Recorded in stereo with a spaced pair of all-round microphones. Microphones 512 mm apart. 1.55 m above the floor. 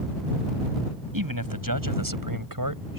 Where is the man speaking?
40° right (ahead or behind).